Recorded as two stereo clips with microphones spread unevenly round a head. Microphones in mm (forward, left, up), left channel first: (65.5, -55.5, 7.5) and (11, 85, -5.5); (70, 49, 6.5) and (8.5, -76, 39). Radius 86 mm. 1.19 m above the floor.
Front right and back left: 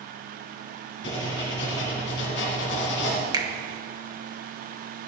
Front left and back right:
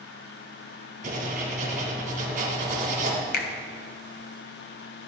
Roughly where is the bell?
I don't hear a bell.